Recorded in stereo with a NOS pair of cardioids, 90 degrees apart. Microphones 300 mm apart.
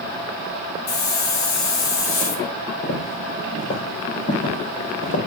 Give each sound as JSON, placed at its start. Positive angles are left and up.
{"t": 0.9, "sound": "a hiss", "azimuth_deg": 65, "distance_m": 2.5}
{"t": 2.8, "sound": "footsteps", "azimuth_deg": 60, "distance_m": 4.0}